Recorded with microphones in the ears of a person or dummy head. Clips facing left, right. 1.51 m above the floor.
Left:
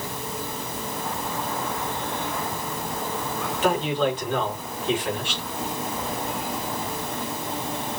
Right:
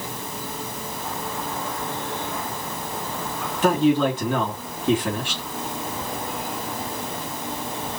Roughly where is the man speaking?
Right.